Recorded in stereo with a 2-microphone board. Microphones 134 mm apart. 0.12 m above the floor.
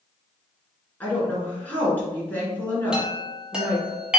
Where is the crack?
I don't hear a crack.